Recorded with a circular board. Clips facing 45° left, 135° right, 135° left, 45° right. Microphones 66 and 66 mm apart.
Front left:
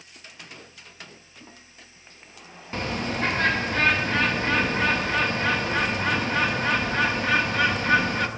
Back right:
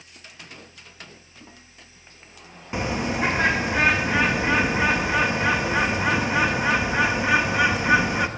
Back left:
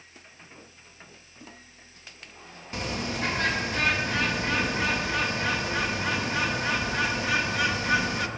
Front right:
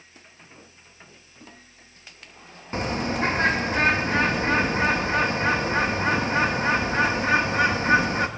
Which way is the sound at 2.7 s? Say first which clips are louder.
Back right 3 dB, front right 5 dB; 70° right.